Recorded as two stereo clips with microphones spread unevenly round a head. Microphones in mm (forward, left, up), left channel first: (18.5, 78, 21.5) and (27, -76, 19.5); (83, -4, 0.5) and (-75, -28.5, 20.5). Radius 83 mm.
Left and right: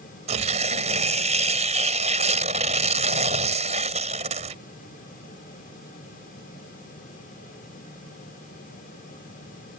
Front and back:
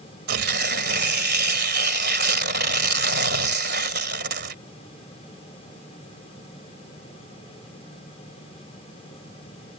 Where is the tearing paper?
145° right.